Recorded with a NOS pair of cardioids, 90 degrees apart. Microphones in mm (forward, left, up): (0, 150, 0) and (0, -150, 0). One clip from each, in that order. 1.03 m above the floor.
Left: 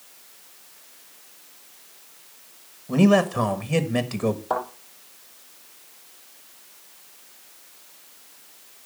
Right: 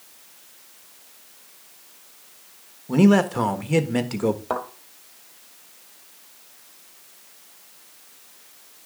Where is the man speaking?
10° right, 1.3 m.